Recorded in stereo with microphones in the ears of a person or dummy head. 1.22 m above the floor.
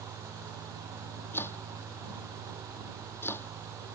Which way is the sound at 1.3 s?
10° left (ahead or behind).